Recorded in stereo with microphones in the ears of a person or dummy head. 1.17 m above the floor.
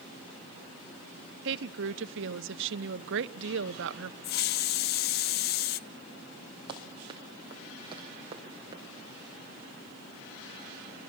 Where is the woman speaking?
60° right (ahead or behind), 1.3 m.